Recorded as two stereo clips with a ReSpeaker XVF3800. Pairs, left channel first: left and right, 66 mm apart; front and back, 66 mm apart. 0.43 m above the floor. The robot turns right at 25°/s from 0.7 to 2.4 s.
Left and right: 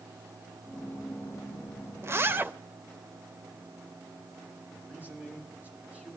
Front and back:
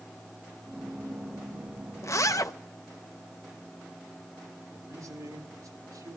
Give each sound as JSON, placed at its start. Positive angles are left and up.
{"t": 2.0, "sound": "a zipper", "azimuth_deg": -40, "distance_m": 0.5}
{"t": 4.7, "sound": "a man speaking", "azimuth_deg": -155, "distance_m": 7.0}